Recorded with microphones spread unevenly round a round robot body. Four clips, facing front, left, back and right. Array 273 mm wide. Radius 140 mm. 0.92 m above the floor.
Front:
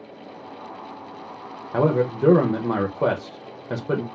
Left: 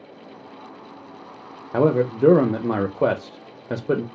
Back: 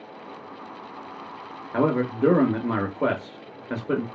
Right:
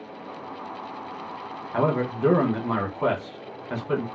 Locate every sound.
1.7 s a man speaking: 75° left, 0.6 m